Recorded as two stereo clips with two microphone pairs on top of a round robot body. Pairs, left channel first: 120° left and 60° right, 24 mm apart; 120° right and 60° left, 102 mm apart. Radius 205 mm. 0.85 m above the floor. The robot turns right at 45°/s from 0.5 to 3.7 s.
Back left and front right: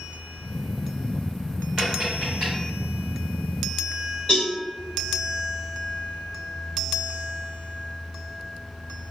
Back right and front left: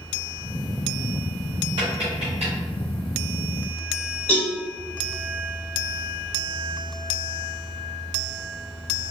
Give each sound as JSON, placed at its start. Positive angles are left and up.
{"t": 1.8, "sound": "tapping", "azimuth_deg": 25, "distance_m": 0.7}
{"t": 4.3, "sound": "a cowbell", "azimuth_deg": 160, "distance_m": 1.1}